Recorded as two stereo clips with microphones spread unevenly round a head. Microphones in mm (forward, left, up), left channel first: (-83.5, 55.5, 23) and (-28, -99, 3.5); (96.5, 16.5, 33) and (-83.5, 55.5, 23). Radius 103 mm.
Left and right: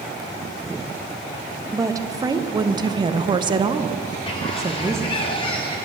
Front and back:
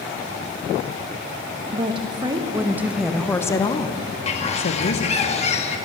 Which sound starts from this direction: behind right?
A woman speaking, at 1.7 s.